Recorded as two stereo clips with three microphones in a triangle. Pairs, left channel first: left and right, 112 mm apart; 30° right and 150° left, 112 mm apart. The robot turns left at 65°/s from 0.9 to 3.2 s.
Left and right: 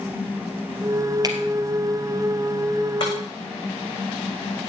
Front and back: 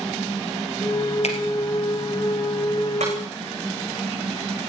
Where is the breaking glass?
145° left, 7 m; by 3.1 s 135° left, 7 m.